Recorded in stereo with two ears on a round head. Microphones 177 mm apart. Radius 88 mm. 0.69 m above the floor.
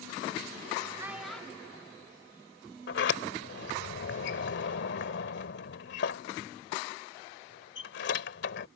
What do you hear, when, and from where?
1.0 s a child speaking: 15° right (ahead or behind); by 3.1 s 25° left (ahead or behind)
2.9 s a sliding door: 65° left (ahead or behind)